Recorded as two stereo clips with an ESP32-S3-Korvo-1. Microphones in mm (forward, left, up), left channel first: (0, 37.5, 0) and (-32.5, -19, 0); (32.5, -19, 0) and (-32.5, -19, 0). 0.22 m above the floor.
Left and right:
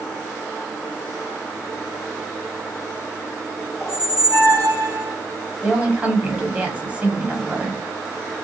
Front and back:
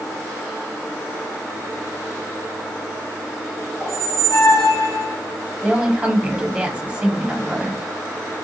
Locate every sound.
3.8 s a squeak: 10° left, 1.4 m
5.6 s a woman speaking: 145° right, 1.2 m